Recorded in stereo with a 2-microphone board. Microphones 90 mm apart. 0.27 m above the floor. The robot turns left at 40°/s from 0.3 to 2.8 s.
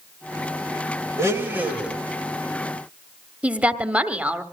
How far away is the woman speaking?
About 1.1 m.